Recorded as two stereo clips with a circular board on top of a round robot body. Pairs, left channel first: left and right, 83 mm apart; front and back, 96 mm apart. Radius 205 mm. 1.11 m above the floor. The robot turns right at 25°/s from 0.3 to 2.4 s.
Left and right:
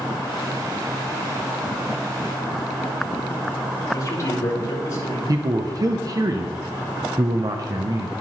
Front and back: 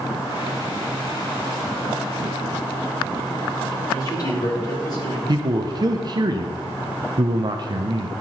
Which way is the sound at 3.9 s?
45° left.